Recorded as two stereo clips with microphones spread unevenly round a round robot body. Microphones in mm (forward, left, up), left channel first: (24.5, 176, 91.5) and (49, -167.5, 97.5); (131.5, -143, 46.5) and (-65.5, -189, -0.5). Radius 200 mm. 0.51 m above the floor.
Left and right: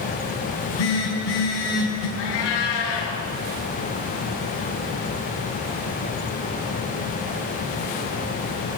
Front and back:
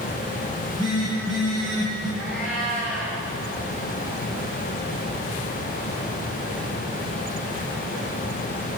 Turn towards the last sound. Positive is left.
turn(degrees=100)